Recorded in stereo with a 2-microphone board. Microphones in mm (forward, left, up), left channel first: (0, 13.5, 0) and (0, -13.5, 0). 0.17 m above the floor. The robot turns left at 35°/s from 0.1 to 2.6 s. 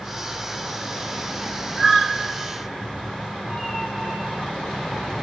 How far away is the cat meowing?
About 4.5 m.